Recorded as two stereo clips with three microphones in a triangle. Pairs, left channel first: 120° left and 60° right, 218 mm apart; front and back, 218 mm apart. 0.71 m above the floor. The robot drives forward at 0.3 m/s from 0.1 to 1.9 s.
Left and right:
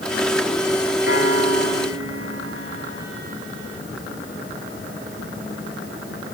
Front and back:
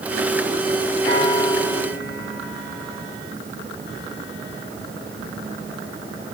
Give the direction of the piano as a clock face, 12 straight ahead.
2 o'clock.